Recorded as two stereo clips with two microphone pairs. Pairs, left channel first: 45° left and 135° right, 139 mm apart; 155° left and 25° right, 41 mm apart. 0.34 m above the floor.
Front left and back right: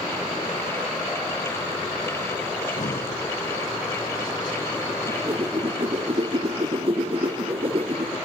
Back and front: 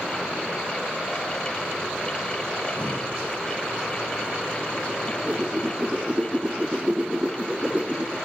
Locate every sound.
2.6 s breathing: 20° left, 7.5 m
5.1 s a whoosh: 90° right, 1.7 m